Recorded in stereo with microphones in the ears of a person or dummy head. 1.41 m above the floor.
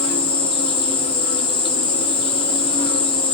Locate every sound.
0.0 s an insect: 30° left (ahead or behind), 0.8 m